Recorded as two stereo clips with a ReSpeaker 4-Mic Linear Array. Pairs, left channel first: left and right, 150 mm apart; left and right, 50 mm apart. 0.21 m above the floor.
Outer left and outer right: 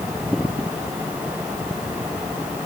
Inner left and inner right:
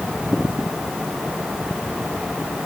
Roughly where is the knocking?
No knocking in this recording.